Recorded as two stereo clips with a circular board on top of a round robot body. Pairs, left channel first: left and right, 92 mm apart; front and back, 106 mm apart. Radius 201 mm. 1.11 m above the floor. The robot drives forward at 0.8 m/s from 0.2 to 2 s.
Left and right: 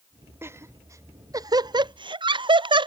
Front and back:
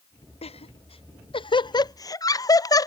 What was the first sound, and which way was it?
Laughter, 25° right.